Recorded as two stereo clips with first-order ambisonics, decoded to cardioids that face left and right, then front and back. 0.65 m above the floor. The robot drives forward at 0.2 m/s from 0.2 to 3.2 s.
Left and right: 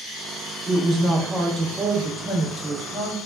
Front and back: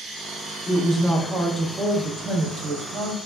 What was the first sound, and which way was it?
A woman speaking, 60° right.